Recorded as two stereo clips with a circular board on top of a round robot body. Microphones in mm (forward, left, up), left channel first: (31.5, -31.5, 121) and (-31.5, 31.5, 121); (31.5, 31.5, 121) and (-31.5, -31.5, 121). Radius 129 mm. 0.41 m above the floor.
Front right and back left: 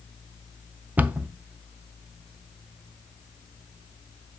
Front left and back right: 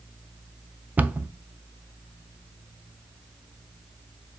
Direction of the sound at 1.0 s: Straight behind.